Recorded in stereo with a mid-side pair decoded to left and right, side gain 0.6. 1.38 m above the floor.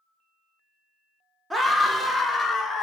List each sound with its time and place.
1.5 s a scream: 10° right, 0.9 m; by 2.9 s 20° left, 1.3 m